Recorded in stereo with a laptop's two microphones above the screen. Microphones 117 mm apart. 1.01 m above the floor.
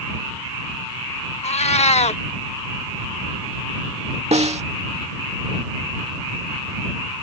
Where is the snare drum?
65° right (ahead or behind).